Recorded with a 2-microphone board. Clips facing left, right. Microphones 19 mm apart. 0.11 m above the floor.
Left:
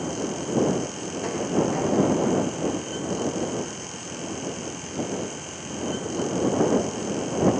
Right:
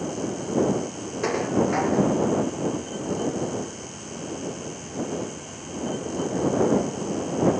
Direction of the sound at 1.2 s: 30° right (ahead or behind).